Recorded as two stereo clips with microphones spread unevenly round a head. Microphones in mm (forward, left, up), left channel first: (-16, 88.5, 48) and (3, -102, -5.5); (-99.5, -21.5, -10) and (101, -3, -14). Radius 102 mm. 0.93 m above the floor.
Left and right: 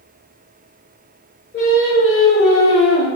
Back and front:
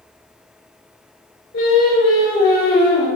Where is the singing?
145° left, 0.9 m.